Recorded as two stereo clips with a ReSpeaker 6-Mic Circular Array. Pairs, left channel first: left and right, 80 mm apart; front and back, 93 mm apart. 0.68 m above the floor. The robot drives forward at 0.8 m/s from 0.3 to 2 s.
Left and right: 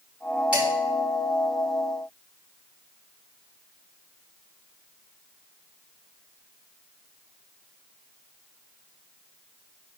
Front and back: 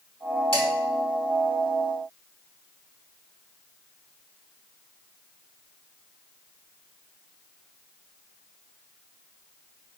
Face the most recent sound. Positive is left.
turn(degrees=-20)